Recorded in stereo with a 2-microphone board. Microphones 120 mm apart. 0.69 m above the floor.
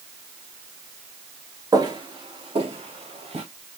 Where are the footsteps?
30° right (ahead or behind), 0.7 m; by 3.5 s 55° right (ahead or behind), 1.3 m.